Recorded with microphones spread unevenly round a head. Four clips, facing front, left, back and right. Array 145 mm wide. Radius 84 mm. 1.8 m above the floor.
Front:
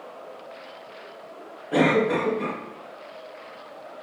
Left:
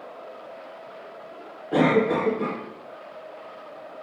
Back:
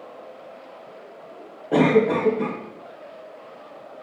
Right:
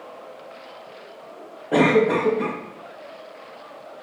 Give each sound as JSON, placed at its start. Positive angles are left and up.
{"t": 1.7, "sound": "a cough", "azimuth_deg": -155, "distance_m": 3.5}